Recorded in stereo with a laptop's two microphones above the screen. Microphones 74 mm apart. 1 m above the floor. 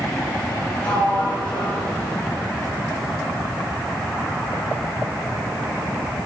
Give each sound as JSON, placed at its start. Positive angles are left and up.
{"t": 0.8, "sound": "a sliding door", "side_deg": 20, "distance_m": 2.0}